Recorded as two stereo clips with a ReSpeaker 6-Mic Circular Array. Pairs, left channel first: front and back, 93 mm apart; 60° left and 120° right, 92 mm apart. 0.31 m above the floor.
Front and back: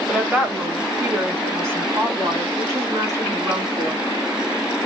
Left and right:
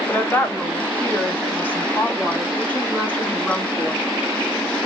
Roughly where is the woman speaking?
Left.